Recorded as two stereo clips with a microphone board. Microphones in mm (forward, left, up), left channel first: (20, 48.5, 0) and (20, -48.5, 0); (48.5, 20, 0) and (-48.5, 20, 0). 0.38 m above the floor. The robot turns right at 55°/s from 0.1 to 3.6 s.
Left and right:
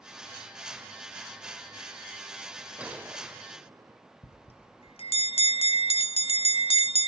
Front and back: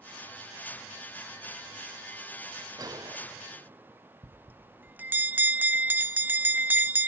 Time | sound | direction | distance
2.8 | a gunshot | 165° right | 1.3 m
4.2 | a bell | 110° left | 0.7 m